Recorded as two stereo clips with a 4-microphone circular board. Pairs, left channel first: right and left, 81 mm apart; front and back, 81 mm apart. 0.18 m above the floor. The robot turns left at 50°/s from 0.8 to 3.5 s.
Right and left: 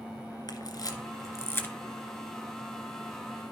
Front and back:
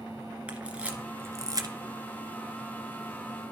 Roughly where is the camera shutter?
Right.